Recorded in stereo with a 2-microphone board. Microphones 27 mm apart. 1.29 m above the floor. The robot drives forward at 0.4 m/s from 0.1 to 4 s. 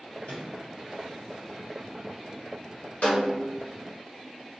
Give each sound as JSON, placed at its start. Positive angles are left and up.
{"t": 0.3, "sound": "a microwave", "side_deg": 50, "distance_m": 1.8}
{"t": 3.0, "sound": "a snare drum", "side_deg": 60, "distance_m": 1.3}